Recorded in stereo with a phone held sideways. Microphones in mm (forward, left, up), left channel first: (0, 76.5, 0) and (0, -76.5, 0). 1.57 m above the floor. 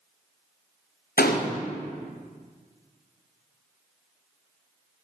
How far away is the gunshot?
About 0.7 m.